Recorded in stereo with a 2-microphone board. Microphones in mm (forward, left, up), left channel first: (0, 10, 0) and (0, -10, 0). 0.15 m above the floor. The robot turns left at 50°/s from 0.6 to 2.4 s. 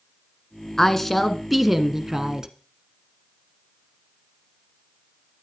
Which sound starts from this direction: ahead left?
A woman speaking, at 0.8 s.